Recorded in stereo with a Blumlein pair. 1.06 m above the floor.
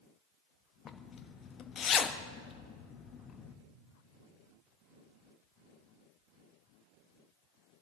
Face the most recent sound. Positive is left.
turn(degrees=25)